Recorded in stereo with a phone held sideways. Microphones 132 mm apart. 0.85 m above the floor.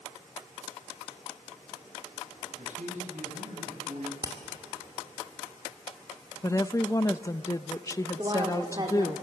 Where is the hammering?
30° right (ahead or behind), 2 m.